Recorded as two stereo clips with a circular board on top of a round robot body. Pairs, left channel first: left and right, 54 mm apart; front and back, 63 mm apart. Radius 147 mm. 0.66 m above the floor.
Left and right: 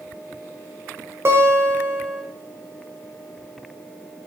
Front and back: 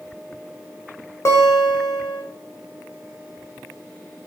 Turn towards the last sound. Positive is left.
turn(degrees=-45)